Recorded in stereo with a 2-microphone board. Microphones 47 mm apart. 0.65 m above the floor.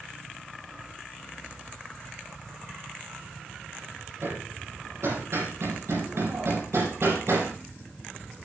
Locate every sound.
4.2 s hammering: 90° right, 6.5 m